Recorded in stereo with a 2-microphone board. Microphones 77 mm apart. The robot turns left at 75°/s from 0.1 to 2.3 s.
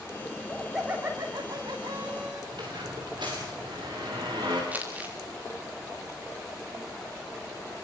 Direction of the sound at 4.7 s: 20° right (ahead or behind).